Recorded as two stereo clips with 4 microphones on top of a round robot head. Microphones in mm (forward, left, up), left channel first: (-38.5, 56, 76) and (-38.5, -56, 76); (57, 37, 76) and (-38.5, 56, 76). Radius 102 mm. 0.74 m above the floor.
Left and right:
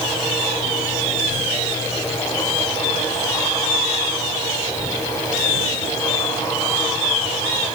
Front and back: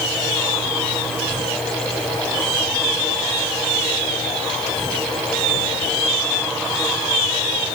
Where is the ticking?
I don't hear ticking.